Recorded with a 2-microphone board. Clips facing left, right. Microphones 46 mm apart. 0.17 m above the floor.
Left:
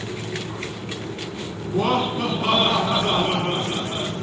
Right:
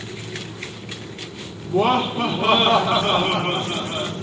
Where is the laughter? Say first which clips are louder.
Right 3 dB; 25° right (ahead or behind), 1.7 m.